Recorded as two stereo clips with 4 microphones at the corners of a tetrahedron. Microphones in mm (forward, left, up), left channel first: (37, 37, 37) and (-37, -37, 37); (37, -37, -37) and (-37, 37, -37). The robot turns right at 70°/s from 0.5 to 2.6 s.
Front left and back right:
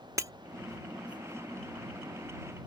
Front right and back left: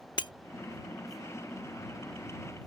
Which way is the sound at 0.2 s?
80° right.